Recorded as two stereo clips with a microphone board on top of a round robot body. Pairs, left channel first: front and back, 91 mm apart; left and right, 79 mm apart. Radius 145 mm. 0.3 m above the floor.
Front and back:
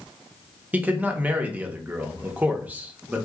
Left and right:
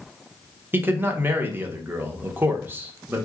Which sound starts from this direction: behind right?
A man speaking, at 0.7 s.